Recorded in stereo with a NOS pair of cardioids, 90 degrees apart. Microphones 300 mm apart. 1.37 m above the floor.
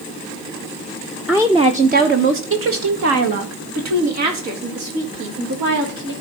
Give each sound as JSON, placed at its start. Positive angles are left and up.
{"t": 1.3, "sound": "a woman speaking", "azimuth_deg": -5, "distance_m": 0.7}